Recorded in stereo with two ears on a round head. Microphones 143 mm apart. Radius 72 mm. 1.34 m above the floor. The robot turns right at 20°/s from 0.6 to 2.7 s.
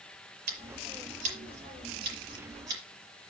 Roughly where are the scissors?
Right.